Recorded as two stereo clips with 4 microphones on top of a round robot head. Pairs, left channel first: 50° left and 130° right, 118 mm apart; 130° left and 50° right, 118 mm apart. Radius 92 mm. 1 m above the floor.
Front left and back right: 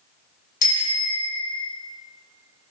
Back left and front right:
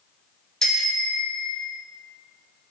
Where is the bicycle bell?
45° left, 3.5 m; by 1.7 s 30° left, 3 m.